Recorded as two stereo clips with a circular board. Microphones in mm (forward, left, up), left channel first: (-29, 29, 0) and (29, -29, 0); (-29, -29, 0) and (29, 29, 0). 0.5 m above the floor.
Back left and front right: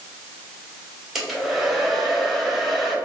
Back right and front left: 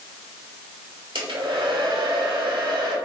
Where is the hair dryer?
40° left, 0.9 m.